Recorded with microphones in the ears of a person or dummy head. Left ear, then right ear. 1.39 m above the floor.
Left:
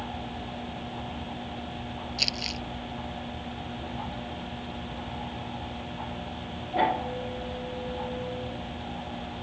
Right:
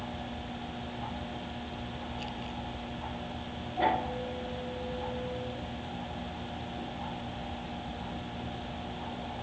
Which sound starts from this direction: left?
Crumpling, at 2.2 s.